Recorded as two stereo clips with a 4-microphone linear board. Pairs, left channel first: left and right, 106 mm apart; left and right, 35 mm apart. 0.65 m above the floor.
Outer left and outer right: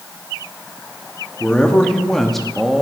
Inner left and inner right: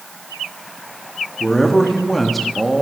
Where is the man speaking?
10° left (ahead or behind), 1.1 m; by 2.8 s 5° right (ahead or behind), 0.9 m.